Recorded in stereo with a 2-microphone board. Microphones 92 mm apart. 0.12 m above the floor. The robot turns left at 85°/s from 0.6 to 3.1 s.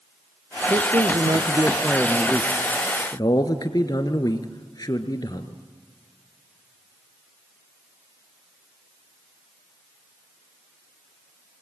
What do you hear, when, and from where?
0.7 s a man speaking: 65° right, 1.5 m; by 5.6 s 85° left, 1.5 m